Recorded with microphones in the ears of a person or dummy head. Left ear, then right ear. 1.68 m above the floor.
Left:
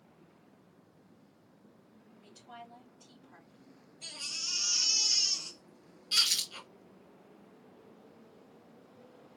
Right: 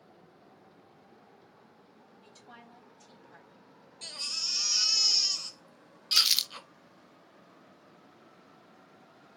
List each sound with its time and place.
2.2 s a woman speaking: 60° right (ahead or behind), 3 m
4.0 s a baby crying: 45° right (ahead or behind), 1.0 m
6.1 s crumpling: 30° right (ahead or behind), 0.5 m